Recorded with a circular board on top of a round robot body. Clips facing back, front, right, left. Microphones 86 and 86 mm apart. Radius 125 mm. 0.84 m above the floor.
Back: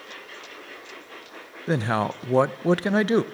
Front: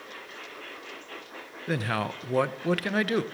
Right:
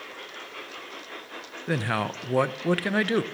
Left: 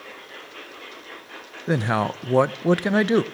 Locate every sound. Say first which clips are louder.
1.7 s a man speaking: back 5 dB, left 5 dB; 140° left, 0.6 m